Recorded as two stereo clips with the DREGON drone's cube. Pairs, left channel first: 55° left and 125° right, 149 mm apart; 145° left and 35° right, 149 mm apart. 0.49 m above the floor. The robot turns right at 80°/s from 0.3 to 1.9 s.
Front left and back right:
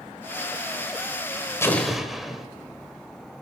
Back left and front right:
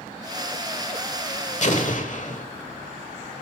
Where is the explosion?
125° left, 1.3 m; by 2.5 s 145° left, 1.3 m.